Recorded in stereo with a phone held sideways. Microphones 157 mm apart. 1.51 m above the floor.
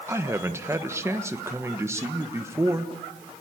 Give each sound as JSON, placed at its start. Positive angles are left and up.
{"t": 0.1, "sound": "a man speaking", "side_deg": -20, "distance_m": 1.3}